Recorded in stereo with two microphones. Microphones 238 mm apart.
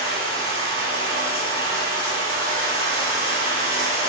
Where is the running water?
25° left (ahead or behind), 4 m.